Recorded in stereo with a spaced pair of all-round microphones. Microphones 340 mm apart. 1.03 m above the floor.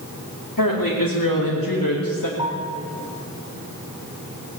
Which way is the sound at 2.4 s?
15° right (ahead or behind).